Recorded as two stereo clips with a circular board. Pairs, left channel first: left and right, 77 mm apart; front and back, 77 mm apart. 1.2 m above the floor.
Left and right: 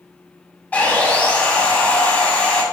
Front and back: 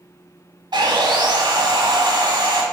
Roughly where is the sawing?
Behind.